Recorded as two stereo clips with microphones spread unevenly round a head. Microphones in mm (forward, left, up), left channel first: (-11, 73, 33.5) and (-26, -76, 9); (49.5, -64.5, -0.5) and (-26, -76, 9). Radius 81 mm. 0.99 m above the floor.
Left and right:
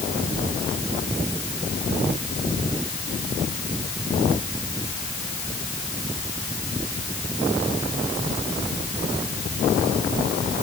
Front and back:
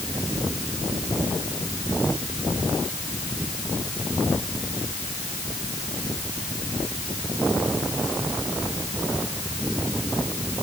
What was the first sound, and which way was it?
Only background noise.